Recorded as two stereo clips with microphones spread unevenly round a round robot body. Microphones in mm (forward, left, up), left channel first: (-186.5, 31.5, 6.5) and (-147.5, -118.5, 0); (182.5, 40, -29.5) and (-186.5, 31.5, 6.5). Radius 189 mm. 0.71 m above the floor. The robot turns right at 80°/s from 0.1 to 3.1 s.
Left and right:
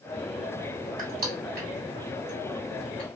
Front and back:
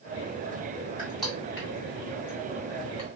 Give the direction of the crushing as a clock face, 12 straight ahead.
4 o'clock.